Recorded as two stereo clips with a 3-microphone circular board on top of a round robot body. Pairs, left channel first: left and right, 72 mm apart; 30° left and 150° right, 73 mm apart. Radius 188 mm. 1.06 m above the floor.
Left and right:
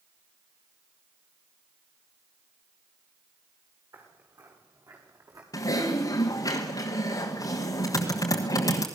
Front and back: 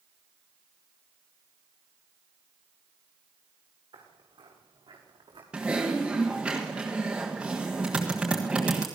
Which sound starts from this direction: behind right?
Footsteps, at 3.9 s.